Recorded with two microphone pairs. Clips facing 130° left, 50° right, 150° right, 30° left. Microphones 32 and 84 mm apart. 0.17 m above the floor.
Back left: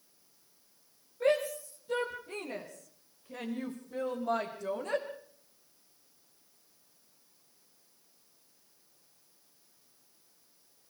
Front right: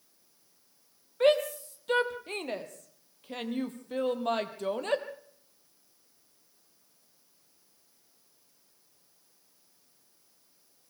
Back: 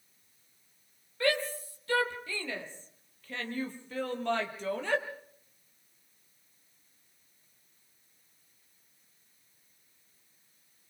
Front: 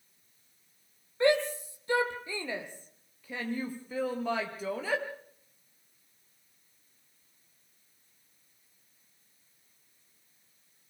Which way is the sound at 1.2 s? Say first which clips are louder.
Front right 4 dB, front 4 dB; 35° right.